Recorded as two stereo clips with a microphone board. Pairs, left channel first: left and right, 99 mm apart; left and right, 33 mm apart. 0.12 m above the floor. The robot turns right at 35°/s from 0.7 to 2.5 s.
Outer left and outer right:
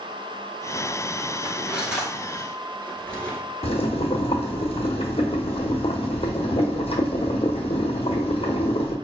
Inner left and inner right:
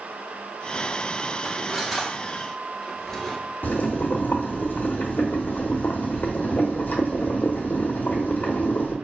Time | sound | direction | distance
1.4 | cutlery clinking | 20° right (ahead or behind) | 1.0 m
3.6 | boiling | 80° left | 0.8 m